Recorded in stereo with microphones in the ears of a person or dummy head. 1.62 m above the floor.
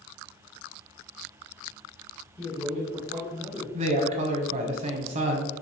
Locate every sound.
2.4 s a man speaking: 10° left (ahead or behind), 1.3 m
3.7 s a woman speaking: 45° right (ahead or behind), 0.8 m